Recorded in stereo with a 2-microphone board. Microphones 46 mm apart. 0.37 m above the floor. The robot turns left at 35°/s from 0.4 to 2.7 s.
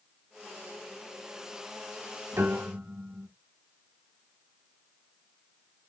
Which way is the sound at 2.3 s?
65° right (ahead or behind).